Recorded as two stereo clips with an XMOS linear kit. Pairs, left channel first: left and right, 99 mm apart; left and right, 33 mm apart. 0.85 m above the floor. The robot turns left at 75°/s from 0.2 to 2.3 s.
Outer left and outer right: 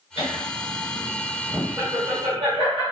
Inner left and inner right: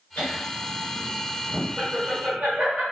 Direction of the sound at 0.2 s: 80° left.